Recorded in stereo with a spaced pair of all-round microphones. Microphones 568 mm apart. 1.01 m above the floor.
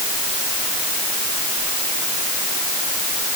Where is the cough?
I don't hear a cough.